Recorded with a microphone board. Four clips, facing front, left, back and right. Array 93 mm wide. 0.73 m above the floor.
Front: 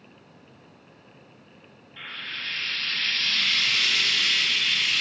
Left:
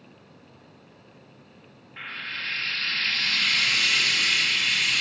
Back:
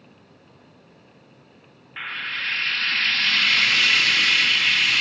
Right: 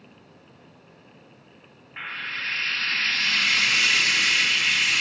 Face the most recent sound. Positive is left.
turn(degrees=-155)